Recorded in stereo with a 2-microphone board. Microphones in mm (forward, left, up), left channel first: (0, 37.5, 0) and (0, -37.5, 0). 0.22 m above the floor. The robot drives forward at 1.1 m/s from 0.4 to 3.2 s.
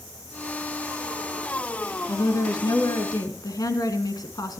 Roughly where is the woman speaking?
Left.